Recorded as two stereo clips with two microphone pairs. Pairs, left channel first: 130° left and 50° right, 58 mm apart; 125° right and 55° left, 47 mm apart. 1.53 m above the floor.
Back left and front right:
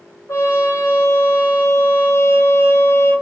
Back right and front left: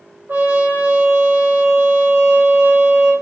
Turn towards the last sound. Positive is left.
turn(degrees=90)